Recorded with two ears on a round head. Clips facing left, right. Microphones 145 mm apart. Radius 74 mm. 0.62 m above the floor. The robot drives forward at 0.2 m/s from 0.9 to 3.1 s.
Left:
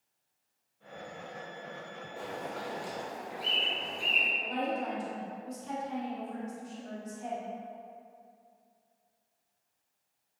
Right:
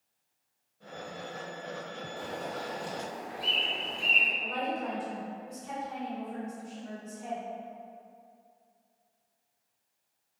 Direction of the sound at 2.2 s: 5° left (ahead or behind).